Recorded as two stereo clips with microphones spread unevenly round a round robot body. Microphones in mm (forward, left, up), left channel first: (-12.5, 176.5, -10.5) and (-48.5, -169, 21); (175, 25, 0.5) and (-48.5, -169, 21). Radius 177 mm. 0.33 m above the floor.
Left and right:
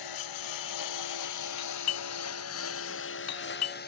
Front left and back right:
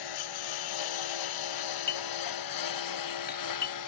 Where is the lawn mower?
45° left; by 3.9 s 15° left.